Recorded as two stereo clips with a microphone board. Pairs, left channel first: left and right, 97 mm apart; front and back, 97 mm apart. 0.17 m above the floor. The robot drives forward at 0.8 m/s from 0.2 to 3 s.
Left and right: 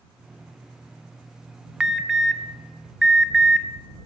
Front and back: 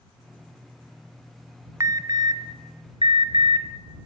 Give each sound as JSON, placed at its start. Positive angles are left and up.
{"t": 1.8, "sound": "an alarm", "azimuth_deg": -170, "distance_m": 1.0}